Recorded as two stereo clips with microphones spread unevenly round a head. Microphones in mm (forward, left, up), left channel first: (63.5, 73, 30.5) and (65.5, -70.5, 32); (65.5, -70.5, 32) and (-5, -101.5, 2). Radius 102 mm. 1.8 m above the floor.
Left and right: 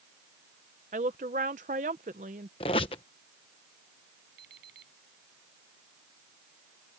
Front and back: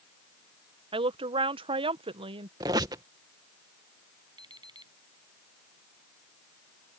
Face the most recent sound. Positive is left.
turn(degrees=-130)